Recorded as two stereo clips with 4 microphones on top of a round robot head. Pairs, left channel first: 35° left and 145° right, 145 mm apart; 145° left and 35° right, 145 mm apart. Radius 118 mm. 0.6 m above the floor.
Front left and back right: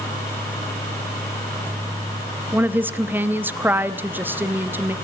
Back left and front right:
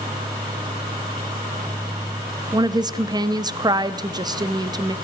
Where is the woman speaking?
80° right, 0.7 m.